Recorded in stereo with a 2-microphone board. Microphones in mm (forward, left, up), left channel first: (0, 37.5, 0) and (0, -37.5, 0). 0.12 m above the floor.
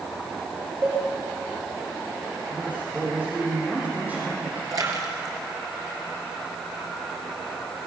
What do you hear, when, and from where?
0.8 s a cowbell: 30° right (ahead or behind), 6.5 m
2.5 s a man speaking: 20° right (ahead or behind), 6 m
4.7 s a splash: 55° right (ahead or behind), 3 m